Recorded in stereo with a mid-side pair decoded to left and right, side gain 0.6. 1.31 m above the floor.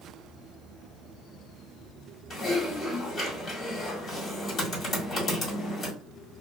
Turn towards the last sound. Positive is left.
turn(degrees=40)